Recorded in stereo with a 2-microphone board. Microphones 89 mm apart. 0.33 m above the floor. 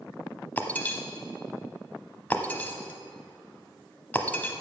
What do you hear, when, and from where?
0.6 s breaking glass: 20° left (ahead or behind), 0.9 m